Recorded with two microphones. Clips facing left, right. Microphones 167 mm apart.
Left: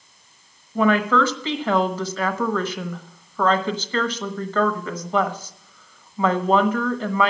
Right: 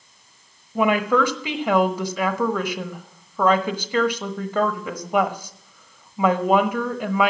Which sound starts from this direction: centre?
A woman speaking, at 0.8 s.